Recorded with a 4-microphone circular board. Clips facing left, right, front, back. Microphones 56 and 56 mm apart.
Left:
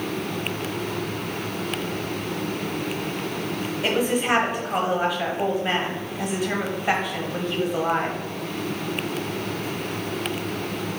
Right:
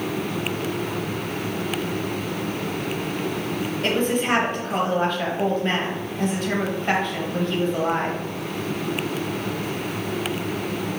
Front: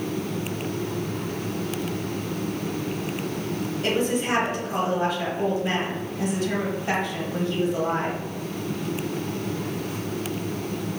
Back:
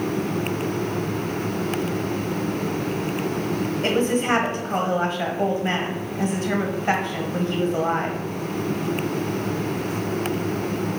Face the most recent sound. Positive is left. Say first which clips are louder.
# even, back 2 dB
turn(degrees=165)